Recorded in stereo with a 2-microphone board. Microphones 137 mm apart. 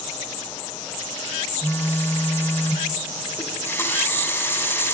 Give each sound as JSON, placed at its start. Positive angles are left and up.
{"t": 1.6, "sound": "a phone buzzing", "side_deg": 15, "distance_m": 0.9}
{"t": 3.4, "sound": "a running tap", "side_deg": 15, "distance_m": 2.0}